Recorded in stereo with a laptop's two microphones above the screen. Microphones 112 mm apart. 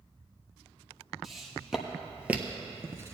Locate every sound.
1.2 s footsteps: centre (ahead or behind), 1.7 m; by 3.1 s 25° right (ahead or behind), 0.9 m